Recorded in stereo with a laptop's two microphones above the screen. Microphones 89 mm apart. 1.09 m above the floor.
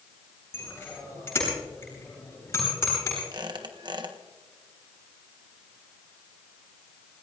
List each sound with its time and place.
0.5 s a bicycle bell: 25° left (ahead or behind), 8 m; by 3.2 s 30° left (ahead or behind), 10 m
3.3 s a squeak: 55° right (ahead or behind), 1.2 m